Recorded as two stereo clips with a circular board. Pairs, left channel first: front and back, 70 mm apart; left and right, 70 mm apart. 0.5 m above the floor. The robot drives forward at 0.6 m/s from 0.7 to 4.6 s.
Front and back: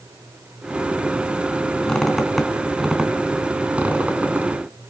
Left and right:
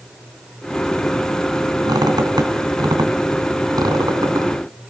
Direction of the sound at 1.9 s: 80° right.